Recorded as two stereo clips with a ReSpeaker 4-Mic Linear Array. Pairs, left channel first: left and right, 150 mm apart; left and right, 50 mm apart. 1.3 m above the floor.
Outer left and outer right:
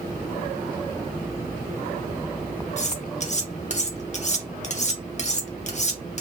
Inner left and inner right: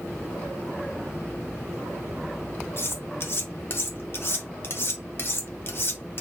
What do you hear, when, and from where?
2.8 s cutlery clinking: 50° left (ahead or behind), 0.8 m